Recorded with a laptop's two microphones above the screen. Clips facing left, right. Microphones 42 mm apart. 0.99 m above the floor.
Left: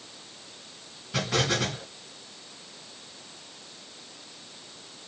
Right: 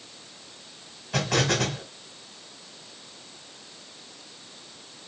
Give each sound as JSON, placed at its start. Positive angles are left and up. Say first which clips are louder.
{"t": 1.1, "sound": "an explosion", "louder": "right 2 dB", "side_deg": -65, "distance_m": 1.7}